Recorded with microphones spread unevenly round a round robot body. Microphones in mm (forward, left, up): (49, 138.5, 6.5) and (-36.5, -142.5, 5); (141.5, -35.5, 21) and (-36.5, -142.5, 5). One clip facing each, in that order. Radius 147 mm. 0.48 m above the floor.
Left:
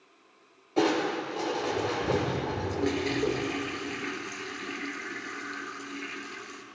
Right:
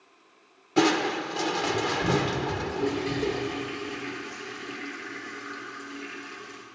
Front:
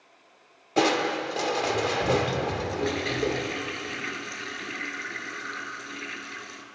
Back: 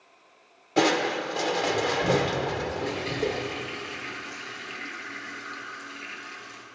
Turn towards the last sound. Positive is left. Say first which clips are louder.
# even, front 2 dB
turn(degrees=5)